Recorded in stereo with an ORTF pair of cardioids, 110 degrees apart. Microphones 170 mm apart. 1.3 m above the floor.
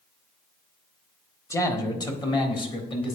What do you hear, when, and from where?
1.5 s a man speaking: 15° left, 1.1 m; by 3.2 s 30° left, 2.0 m